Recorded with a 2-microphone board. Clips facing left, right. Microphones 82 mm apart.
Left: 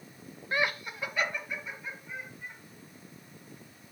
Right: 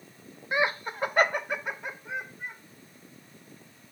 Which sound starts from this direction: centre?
Laughter, at 0.5 s.